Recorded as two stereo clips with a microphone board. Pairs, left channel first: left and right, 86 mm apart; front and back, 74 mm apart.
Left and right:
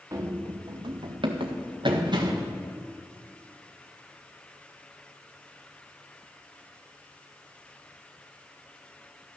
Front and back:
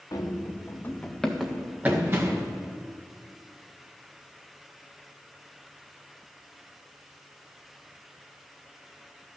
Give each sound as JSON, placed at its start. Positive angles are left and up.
{"t": 0.1, "sound": "running footsteps", "azimuth_deg": -40, "distance_m": 2.0}